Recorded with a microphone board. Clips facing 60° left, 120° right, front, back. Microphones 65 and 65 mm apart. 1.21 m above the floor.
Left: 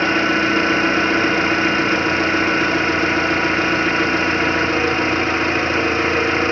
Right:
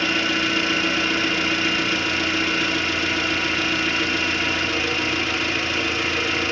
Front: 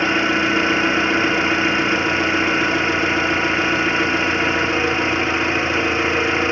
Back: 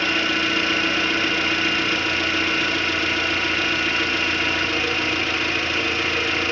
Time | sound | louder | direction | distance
0.0 | an engine running | left 6 dB, front 4 dB | 45° left | 0.8 m